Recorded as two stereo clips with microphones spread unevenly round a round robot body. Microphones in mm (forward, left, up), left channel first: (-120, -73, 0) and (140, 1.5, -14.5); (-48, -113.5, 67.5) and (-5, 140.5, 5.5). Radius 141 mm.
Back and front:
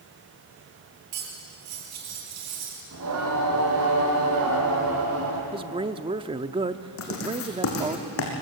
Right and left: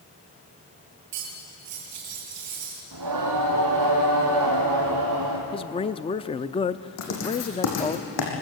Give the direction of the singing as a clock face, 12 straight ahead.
10 o'clock.